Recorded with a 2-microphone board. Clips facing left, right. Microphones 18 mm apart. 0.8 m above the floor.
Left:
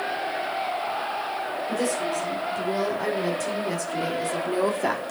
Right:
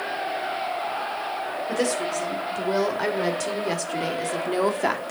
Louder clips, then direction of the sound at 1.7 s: Right 2 dB; 45° right (ahead or behind).